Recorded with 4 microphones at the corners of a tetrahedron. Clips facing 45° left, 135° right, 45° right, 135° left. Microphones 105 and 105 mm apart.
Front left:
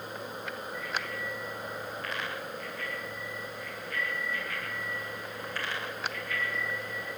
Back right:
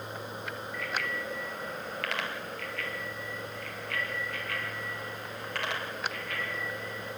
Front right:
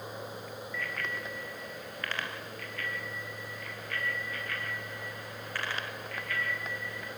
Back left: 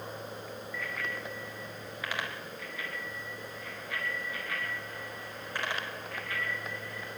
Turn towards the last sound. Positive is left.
turn(degrees=-155)